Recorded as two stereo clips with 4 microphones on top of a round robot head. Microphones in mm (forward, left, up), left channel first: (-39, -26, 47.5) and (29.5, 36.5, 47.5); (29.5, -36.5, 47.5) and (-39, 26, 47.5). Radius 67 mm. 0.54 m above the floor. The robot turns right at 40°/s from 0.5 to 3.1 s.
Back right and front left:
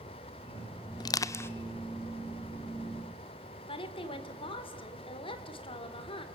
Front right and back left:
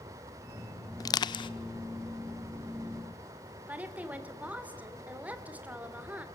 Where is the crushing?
95° right, 0.5 m; by 1.5 s 75° right, 0.5 m.